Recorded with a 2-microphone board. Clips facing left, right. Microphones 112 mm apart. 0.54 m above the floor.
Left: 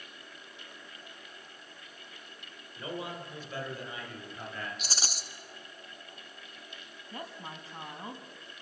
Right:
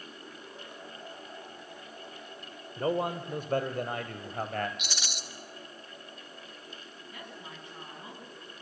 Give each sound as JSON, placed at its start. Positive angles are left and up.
{"t": 2.8, "sound": "a man speaking", "side_deg": -55, "distance_m": 2.5}
{"t": 4.8, "sound": "a rattle", "side_deg": 40, "distance_m": 1.2}
{"t": 7.1, "sound": "a woman speaking", "side_deg": 35, "distance_m": 5.5}